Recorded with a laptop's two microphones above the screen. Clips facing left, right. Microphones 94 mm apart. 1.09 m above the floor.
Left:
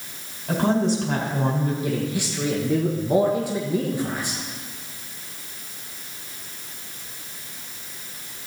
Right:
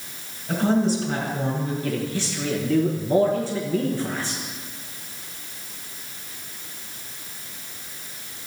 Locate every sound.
0.5 s a woman speaking: 75° left (ahead or behind), 5 m
1.8 s a man speaking: 15° left (ahead or behind), 1.1 m